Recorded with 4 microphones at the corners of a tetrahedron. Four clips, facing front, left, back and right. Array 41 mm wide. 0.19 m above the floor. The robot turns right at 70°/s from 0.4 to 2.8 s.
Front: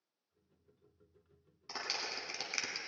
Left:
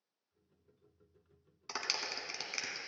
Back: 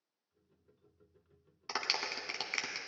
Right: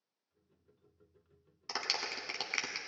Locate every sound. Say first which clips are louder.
1.7 s a clap: right 1 dB, back 4 dB; 175° left, 1.0 m; by 2.8 s 110° right, 1.0 m